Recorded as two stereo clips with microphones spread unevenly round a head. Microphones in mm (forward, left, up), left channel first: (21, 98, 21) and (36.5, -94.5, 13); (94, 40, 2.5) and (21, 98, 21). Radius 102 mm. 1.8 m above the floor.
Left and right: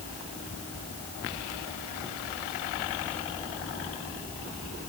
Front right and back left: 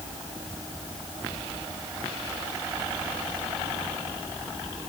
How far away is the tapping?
I don't hear tapping.